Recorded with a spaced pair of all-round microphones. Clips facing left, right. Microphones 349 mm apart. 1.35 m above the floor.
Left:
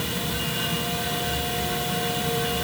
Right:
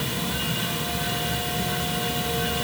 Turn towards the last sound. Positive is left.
No sound to turn to.